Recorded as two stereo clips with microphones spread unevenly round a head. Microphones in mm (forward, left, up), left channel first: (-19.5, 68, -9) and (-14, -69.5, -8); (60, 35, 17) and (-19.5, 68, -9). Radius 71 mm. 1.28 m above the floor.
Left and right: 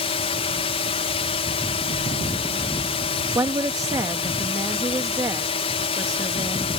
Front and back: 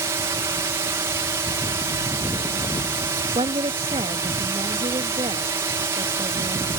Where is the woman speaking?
155° right.